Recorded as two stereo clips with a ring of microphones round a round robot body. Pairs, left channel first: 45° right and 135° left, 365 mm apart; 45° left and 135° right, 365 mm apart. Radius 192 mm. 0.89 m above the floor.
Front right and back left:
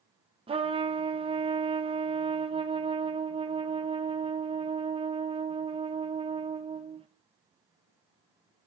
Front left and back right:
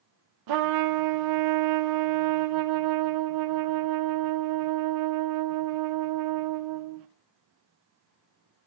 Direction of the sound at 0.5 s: 150° right.